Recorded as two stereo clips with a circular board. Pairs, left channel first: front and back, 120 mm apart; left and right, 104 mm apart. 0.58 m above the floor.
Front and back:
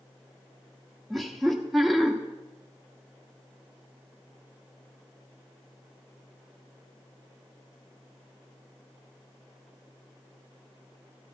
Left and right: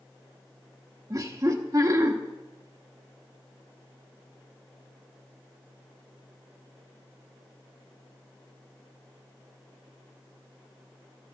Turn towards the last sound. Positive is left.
turn(degrees=-90)